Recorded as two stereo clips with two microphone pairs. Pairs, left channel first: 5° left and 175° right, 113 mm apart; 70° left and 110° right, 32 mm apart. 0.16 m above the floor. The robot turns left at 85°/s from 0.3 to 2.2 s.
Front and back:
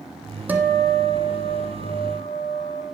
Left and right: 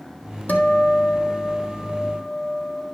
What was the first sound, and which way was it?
A guitar, 110° left.